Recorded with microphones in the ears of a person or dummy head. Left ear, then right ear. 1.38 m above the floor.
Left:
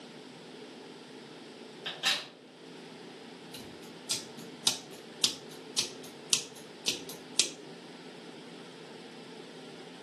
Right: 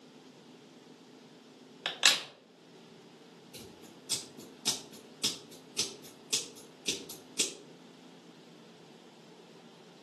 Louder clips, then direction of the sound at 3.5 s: Left 1 dB; 40° left (ahead or behind).